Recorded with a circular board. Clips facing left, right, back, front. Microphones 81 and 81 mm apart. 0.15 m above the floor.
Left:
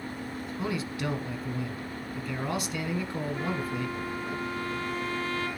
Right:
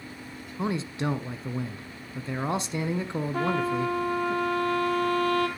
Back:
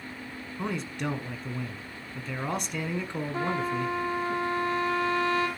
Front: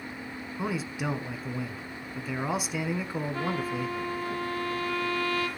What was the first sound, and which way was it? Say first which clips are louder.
A man speaking: right 4 dB, even; 80° right.